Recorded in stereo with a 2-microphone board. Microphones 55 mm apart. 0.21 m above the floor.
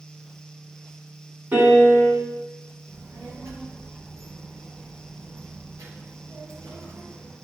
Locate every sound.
1.5 s a piano: 35° right (ahead or behind), 1.7 m
2.9 s a child speaking: 65° right (ahead or behind), 3 m